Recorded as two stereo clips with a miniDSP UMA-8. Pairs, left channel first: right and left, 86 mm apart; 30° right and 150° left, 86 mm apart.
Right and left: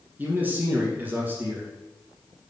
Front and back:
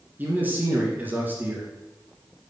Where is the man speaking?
120° left, 1.1 m.